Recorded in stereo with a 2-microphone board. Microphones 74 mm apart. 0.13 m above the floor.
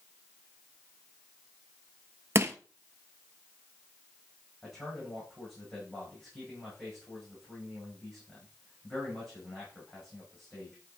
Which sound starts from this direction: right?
Crushing, at 2.4 s.